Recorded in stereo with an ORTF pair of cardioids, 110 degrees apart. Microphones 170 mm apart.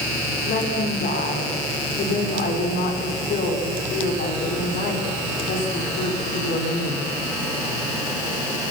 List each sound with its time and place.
0.5 s a woman speaking: 65° left, 6 m